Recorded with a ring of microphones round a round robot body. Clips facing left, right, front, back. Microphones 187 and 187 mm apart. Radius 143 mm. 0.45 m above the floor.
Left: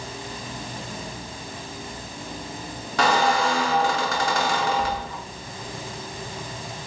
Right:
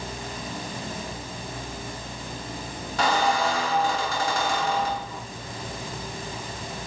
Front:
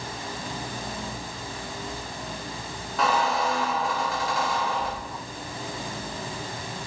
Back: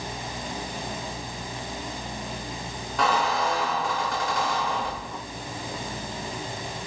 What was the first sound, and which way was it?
A squeak, 85° left.